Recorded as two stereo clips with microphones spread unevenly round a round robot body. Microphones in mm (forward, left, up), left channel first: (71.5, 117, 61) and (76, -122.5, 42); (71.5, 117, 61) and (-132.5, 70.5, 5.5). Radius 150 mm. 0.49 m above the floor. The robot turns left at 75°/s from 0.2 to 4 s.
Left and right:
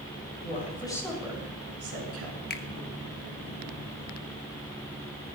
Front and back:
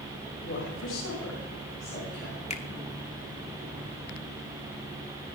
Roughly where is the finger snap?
Left.